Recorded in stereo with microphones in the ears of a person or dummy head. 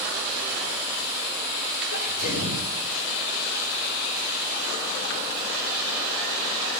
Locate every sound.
1.9 s a sneeze: 50° left (ahead or behind), 4.5 m